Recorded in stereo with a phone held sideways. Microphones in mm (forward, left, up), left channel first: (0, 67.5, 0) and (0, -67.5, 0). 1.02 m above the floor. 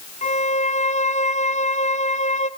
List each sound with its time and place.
0.2 s a violin: 60° left (ahead or behind), 0.7 m